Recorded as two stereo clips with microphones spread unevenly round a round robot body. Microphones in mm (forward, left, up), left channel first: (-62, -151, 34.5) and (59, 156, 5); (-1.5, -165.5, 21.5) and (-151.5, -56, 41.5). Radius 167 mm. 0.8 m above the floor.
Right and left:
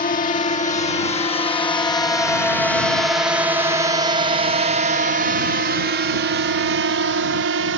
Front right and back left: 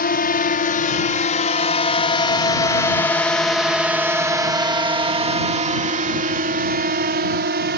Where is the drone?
45° right; by 7.8 s 115° left.